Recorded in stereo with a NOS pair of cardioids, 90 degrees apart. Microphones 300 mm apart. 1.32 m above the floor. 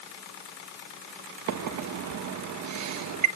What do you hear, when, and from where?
1.5 s a microwave: 65° right, 1.4 m